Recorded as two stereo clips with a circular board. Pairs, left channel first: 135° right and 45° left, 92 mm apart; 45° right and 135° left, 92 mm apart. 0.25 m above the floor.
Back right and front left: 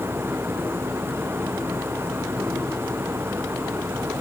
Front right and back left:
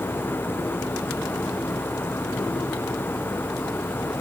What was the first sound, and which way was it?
Only background noise.